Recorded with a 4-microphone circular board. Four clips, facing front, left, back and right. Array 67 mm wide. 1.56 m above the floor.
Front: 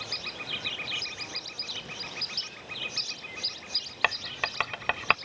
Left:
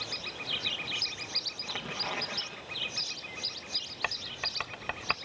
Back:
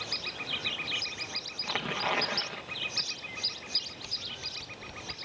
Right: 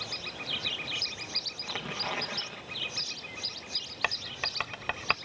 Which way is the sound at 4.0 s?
10° right.